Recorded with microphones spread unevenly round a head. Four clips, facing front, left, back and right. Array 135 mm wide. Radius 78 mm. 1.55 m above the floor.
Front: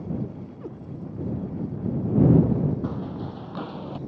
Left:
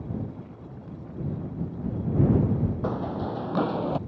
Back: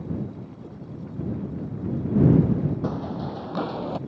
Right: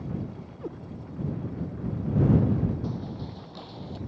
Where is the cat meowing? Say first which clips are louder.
Right 7 dB, front 4 dB; 70° right.